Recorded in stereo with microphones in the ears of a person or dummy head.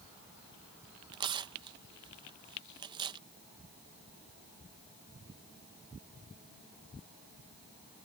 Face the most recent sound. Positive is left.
turn(degrees=-25)  # may be behind; listen again after turning